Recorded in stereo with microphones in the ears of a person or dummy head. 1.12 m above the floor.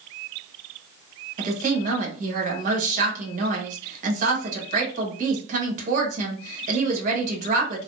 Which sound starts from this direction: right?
A woman speaking, at 1.4 s.